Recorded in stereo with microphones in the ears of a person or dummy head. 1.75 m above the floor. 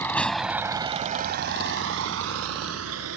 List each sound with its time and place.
0.0 s a vehicle: 20° left (ahead or behind); by 3.2 s 85° right